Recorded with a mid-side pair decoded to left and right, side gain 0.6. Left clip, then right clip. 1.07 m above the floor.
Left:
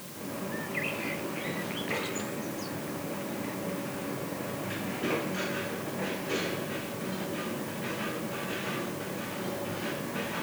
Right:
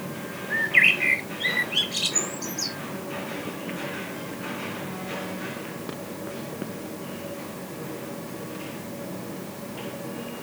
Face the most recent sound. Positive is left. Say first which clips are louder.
# right 17 dB
turn(degrees=-65)